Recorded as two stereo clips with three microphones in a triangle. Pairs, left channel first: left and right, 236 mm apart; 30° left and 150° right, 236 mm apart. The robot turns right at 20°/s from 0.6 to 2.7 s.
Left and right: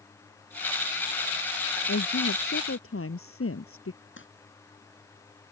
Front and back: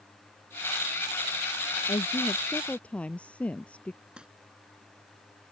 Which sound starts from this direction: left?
A woman speaking, at 1.9 s.